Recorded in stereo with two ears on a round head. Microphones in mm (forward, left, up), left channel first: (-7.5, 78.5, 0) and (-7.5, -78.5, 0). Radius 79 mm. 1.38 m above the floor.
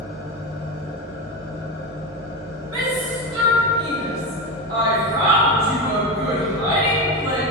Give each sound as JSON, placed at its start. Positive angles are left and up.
{"t": 0.0, "sound": "an engine running", "side_deg": 15, "distance_m": 1.4}
{"t": 2.7, "sound": "a shout", "side_deg": -20, "distance_m": 1.0}